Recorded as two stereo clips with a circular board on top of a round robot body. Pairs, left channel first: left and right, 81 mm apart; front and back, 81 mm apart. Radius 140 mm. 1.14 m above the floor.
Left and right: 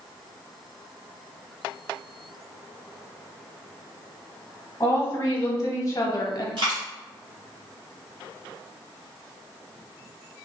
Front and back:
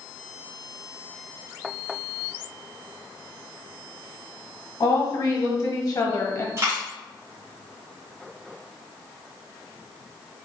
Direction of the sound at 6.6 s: 125° right.